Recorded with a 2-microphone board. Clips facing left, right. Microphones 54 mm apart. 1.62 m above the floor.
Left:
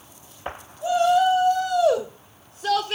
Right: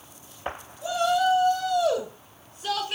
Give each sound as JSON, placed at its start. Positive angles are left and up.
{"t": 0.8, "sound": "a shout", "side_deg": 50, "distance_m": 4.5}